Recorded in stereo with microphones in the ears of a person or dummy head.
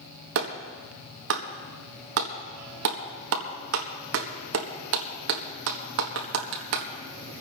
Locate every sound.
0.3 s a clap: 65° right (ahead or behind), 1.5 m